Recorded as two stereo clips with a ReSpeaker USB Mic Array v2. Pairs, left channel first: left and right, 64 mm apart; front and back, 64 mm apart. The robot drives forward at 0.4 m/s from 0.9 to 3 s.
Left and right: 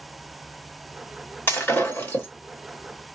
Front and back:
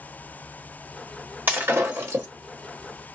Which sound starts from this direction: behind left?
Breaking glass, at 1.5 s.